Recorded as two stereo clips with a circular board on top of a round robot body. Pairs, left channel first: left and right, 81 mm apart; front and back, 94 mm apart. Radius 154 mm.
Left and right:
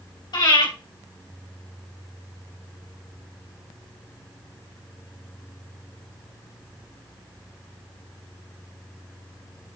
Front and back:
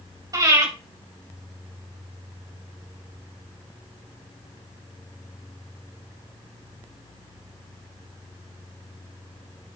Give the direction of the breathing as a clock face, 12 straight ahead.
8 o'clock.